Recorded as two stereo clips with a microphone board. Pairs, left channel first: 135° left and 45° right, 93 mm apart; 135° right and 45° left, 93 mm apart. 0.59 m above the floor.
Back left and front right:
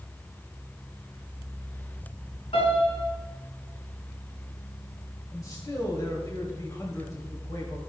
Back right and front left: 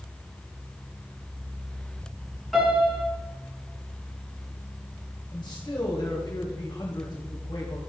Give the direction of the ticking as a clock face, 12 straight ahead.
No ticking in this recording.